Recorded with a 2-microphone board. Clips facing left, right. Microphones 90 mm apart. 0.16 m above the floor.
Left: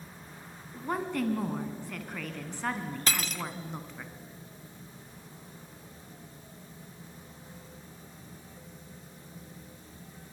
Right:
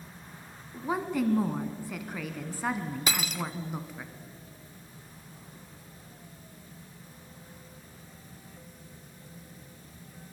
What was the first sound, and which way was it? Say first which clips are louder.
A woman speaking: right 2 dB; 5° right (ahead or behind).